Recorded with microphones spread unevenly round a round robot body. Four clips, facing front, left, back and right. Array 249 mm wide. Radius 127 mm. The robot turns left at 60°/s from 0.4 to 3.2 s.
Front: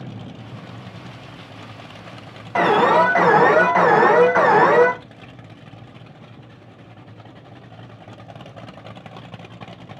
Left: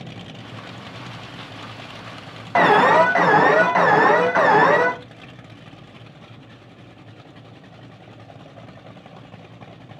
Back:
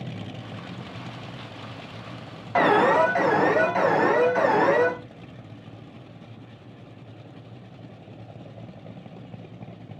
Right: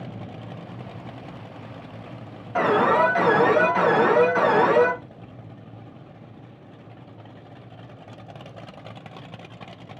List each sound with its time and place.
2.5 s an alarm: 85° left, 2 m; by 4.9 s 50° left, 2 m